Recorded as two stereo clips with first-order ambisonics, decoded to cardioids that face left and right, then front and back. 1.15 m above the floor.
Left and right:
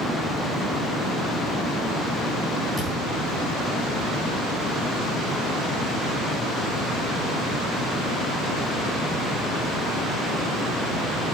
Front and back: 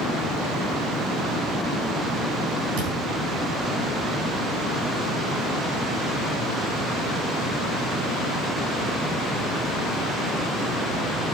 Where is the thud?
170° right, 6.5 m.